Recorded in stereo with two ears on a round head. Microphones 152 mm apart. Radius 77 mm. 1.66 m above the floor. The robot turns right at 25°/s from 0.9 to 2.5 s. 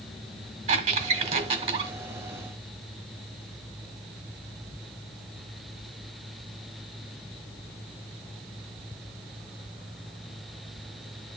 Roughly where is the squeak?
Right.